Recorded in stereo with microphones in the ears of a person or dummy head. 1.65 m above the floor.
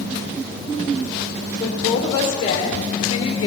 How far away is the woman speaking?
About 1.3 m.